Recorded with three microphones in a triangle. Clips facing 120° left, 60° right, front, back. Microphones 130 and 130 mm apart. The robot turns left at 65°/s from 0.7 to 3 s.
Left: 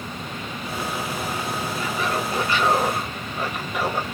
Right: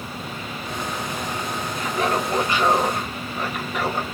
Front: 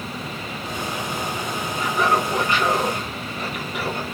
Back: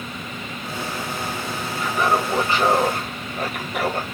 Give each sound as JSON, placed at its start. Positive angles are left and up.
{"t": 1.8, "sound": "laughter", "azimuth_deg": -80, "distance_m": 1.6}